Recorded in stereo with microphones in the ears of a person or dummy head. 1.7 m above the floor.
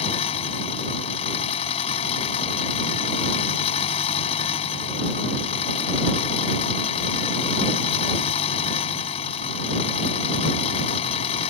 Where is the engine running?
35° left (ahead or behind).